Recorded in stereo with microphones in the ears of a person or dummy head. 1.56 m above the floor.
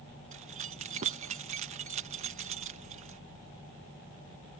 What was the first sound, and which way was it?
Keys jangling, 40° right (ahead or behind).